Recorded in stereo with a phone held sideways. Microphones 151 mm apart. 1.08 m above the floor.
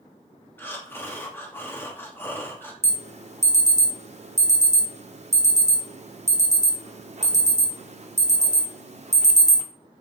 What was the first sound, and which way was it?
Breathing, 15° left (ahead or behind).